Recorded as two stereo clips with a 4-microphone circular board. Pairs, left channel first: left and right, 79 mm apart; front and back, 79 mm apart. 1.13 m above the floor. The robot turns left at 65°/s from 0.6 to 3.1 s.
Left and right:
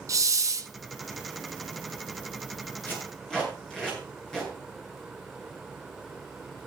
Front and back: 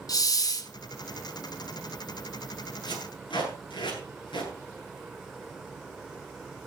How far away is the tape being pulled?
About 9 m.